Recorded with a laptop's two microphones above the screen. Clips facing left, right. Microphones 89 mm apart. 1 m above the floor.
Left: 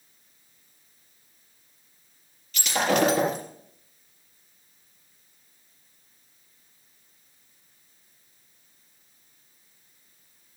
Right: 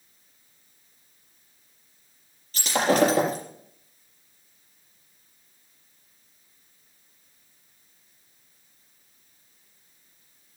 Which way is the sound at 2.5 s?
35° right (ahead or behind).